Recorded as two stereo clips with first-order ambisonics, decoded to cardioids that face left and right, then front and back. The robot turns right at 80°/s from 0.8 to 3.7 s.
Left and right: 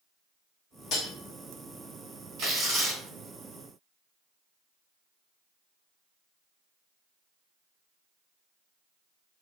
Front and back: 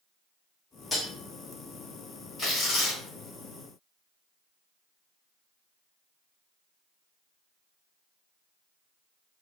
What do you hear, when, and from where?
0.9 s cutlery clinking: 80° left, 0.9 m; by 1.1 s 95° left, 0.9 m
2.4 s tearing paper: 65° right, 1.8 m; by 3.0 s 15° right, 1.8 m